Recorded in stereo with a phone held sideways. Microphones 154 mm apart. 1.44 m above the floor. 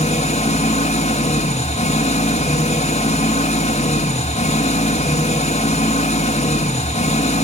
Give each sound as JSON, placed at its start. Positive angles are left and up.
{"t": 0.0, "sound": "an engine running", "side_deg": 45, "distance_m": 1.9}